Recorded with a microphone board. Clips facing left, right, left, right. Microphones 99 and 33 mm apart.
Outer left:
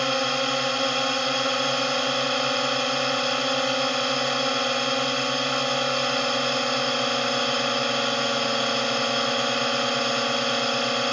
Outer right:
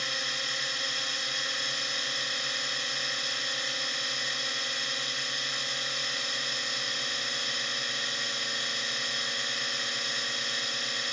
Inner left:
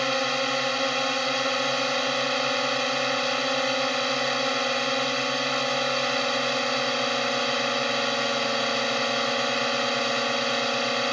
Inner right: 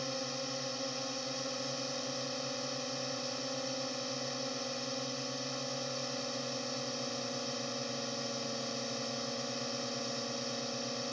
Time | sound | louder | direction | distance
0.0 | a drone | outer left 14 dB, inner left 14 dB | 70° left (ahead or behind) | ?